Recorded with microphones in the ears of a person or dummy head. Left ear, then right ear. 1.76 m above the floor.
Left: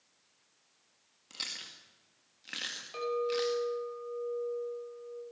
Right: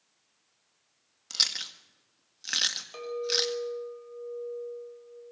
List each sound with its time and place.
1.3 s chewing: 40° right (ahead or behind), 1.8 m
2.9 s a clink: 10° right (ahead or behind), 5 m